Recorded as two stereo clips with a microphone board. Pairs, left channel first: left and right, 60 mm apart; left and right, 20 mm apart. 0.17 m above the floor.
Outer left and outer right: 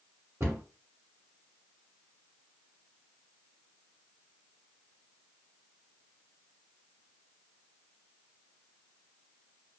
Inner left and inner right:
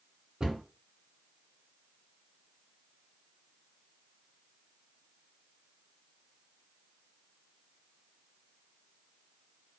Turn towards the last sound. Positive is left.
turn(degrees=-45)  # may be behind; listen again after turning